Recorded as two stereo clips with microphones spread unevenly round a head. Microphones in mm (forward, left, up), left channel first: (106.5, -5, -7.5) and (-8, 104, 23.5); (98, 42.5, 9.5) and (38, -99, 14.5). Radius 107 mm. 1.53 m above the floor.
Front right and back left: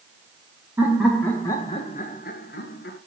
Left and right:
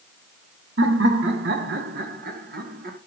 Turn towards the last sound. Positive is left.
turn(degrees=-80)